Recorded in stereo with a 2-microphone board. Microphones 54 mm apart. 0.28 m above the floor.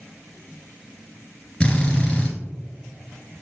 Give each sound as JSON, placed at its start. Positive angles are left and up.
{"t": 1.6, "sound": "a drill", "side_deg": 20, "distance_m": 2.0}